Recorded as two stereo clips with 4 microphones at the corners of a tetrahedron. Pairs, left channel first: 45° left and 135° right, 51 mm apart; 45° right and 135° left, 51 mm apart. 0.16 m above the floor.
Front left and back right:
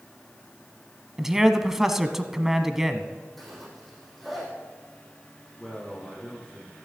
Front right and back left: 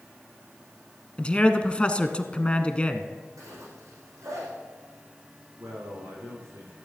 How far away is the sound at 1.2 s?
About 1.1 m.